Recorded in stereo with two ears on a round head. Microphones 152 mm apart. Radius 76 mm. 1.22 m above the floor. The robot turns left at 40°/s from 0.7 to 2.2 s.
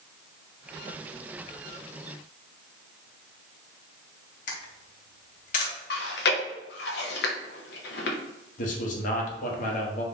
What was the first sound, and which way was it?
A camera shutter, 50° left (ahead or behind).